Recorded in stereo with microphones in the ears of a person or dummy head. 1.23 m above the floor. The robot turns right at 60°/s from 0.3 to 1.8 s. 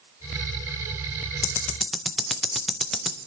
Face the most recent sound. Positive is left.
turn(degrees=0)  # may be behind; listen again after turning